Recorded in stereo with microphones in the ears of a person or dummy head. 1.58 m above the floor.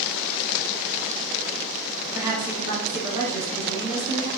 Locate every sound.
2.1 s a woman speaking: 15° right (ahead or behind), 1.1 m